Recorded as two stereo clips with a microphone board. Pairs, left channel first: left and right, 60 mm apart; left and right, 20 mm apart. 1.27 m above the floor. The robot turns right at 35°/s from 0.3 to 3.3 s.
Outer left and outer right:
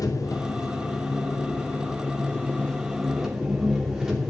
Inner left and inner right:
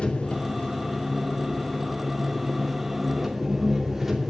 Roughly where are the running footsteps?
No running footsteps in this recording.